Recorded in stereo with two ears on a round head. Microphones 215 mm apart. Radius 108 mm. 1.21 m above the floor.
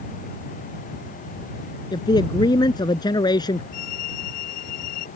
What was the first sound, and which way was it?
A man speaking, 20° left (ahead or behind).